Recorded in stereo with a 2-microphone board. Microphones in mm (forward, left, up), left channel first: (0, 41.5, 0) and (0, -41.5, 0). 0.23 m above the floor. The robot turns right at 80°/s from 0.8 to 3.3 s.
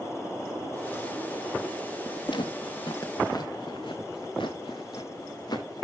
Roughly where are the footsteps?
Left.